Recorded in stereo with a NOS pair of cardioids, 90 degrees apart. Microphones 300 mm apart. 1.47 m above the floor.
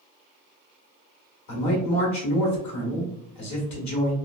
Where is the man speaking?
65° left, 1.6 m.